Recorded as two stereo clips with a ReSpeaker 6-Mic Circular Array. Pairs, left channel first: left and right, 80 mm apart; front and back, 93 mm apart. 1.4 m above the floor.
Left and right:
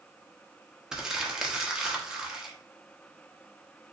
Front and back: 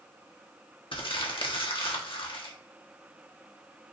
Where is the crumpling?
10° right, 1.0 m.